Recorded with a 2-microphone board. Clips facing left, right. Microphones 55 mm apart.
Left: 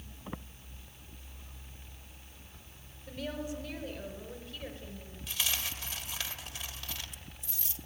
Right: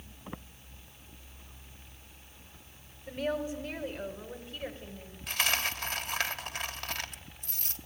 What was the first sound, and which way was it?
A woman speaking, 30° right (ahead or behind).